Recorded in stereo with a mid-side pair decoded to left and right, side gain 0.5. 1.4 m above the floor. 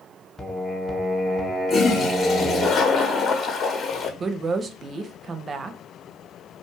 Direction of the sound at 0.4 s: 15° left.